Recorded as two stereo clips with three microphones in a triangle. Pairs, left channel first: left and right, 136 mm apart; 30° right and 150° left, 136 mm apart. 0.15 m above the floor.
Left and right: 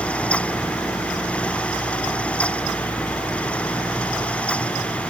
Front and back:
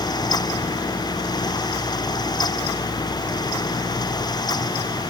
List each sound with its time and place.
Only background noise.